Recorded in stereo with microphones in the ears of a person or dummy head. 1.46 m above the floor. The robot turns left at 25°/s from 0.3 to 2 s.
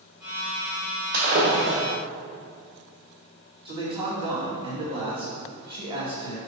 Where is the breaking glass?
45° right (ahead or behind), 1.5 m; by 1.8 s 40° right (ahead or behind), 1.5 m.